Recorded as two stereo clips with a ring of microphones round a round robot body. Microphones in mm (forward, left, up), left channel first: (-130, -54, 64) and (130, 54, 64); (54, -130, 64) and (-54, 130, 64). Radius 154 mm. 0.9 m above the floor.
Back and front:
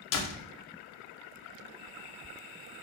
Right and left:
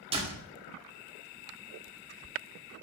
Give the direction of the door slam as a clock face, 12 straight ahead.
6 o'clock.